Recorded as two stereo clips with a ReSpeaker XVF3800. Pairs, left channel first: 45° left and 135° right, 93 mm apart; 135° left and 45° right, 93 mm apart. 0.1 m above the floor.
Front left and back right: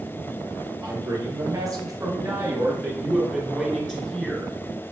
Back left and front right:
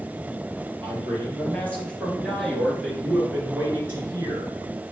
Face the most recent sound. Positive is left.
turn(degrees=-30)